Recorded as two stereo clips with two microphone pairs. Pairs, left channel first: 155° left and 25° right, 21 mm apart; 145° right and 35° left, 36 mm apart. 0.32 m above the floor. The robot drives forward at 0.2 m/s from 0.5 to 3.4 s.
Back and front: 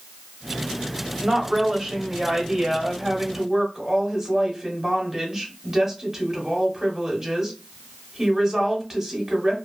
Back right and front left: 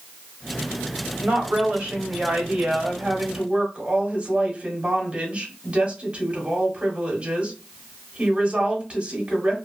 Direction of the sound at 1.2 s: 20° left.